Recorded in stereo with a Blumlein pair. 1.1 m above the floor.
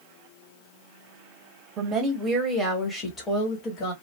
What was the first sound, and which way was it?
A woman speaking, 25° right.